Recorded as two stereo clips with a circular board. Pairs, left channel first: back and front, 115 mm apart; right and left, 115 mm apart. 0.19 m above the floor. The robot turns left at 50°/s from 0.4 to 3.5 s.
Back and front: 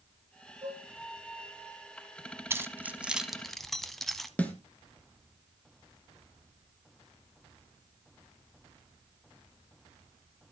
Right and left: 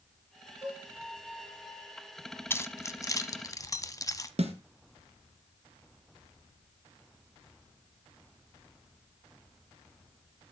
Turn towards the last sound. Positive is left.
turn(degrees=105)